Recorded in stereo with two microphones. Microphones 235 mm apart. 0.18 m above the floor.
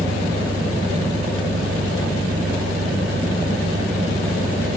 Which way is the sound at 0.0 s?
70° right (ahead or behind).